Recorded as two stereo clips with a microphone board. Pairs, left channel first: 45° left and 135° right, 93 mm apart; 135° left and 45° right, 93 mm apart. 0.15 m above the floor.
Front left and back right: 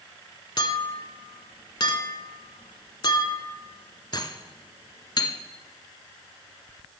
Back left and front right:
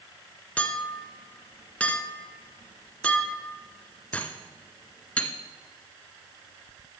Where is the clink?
65° left, 1.1 m.